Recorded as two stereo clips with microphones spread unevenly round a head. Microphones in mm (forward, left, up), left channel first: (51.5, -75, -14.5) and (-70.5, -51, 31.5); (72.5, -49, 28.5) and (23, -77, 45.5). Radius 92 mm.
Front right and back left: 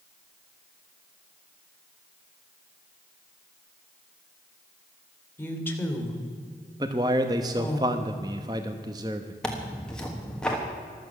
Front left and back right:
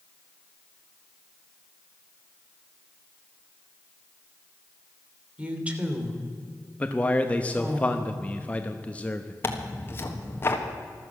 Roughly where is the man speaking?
Left.